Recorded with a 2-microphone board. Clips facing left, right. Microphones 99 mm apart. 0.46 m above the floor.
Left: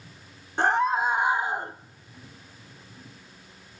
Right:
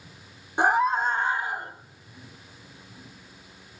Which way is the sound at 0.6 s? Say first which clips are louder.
Right 1 dB; 10° right (ahead or behind).